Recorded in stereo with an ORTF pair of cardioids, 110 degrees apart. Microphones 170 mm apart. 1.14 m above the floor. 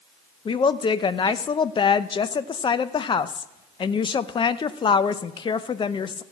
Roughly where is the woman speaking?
Ahead left.